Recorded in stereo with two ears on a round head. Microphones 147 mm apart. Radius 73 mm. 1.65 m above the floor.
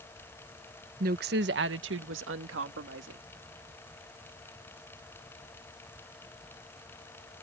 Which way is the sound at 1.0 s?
50° right (ahead or behind).